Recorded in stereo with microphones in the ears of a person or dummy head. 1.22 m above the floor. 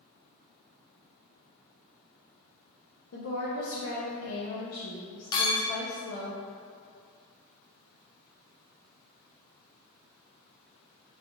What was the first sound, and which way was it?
A woman speaking, 75° left (ahead or behind).